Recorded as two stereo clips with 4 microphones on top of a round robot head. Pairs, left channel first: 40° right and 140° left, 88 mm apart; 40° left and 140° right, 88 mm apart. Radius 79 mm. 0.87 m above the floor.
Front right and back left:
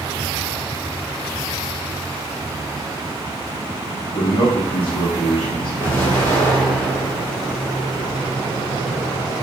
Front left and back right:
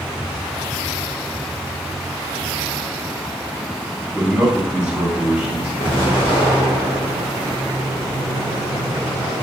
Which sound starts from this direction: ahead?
An explosion, at 5.8 s.